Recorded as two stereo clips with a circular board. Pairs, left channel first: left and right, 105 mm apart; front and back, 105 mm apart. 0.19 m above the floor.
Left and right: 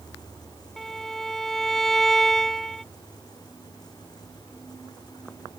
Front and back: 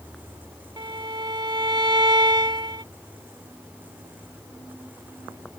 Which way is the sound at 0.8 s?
175° left.